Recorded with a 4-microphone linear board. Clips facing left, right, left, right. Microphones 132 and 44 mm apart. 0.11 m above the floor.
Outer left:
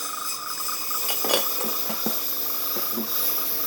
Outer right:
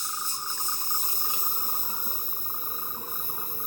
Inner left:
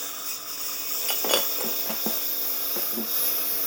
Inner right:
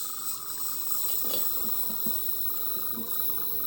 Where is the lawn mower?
65° left (ahead or behind); by 3.7 s 85° left.